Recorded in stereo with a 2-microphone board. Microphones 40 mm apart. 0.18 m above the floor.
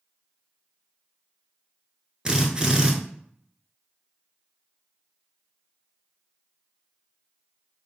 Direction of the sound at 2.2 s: 25° right (ahead or behind).